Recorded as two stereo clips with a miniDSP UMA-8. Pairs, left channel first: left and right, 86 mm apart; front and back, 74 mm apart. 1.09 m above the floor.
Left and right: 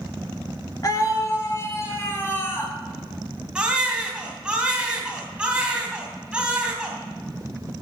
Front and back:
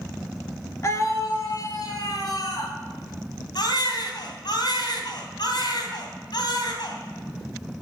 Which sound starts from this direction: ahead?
A baby crying, at 3.5 s.